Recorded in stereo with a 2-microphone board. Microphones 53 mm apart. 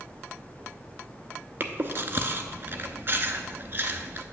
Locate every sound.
1.6 s chewing: 45° right (ahead or behind), 0.7 m